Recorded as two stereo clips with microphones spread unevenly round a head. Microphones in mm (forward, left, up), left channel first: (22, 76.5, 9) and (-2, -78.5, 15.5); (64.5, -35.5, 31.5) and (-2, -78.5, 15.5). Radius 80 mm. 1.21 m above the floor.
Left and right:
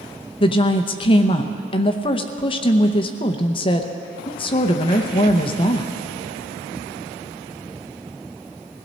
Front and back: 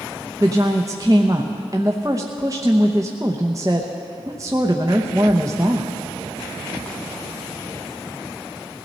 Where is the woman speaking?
145° left, 0.7 m.